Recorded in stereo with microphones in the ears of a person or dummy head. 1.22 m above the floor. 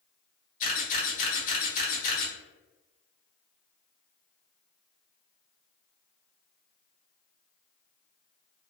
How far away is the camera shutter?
About 1.3 m.